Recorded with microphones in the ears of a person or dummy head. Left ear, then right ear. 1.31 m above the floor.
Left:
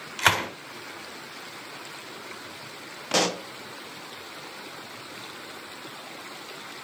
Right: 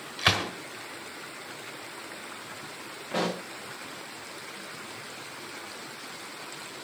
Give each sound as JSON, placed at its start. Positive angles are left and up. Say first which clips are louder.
{"t": 0.2, "sound": "a gunshot", "louder": "left 3 dB", "side_deg": 35, "distance_m": 3.0}
{"t": 3.1, "sound": "a pop", "louder": "left 6 dB", "side_deg": 85, "distance_m": 0.9}